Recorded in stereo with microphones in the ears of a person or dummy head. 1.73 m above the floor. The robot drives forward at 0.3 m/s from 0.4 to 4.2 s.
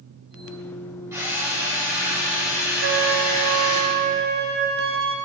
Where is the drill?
10° right (ahead or behind), 1.1 m; by 3.8 s 5° right (ahead or behind), 1.9 m.